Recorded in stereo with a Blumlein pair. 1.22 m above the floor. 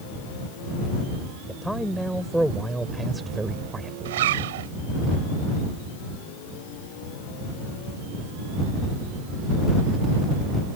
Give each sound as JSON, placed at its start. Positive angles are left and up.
{"t": 1.5, "sound": "a man speaking", "azimuth_deg": 0}
{"t": 4.0, "sound": "a zipper", "azimuth_deg": -55}